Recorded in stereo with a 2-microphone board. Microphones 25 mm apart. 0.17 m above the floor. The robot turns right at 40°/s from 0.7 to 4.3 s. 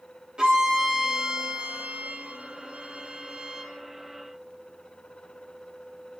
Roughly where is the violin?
Behind right.